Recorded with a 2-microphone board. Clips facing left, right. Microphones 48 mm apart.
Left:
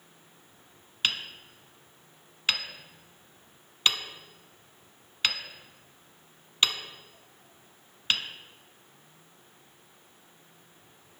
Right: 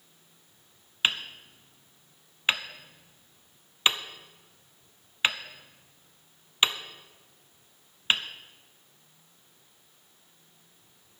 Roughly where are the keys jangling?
I don't hear keys jangling.